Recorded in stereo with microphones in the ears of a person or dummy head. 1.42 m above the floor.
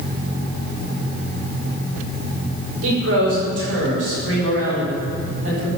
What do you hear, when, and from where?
2.8 s a man speaking: 85° right, 5.5 m